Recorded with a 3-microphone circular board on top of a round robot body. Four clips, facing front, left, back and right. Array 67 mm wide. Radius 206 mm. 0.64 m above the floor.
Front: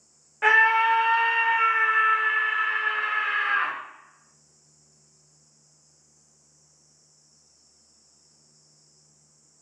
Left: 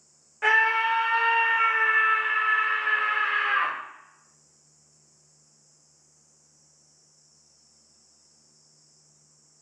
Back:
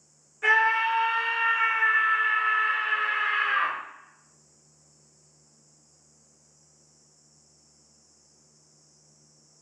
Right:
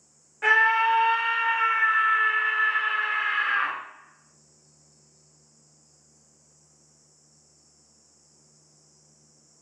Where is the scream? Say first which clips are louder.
Right 2 dB, front 3 dB; 5° left, 1.2 m; by 3.8 s 115° left, 1.7 m.